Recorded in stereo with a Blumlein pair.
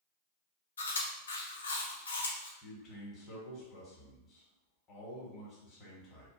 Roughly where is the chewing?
Left.